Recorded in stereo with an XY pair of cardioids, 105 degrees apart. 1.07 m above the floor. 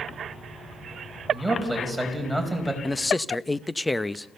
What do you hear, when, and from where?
1.3 s a man speaking: 5° left, 5 m
2.8 s a man speaking: 15° left, 0.8 m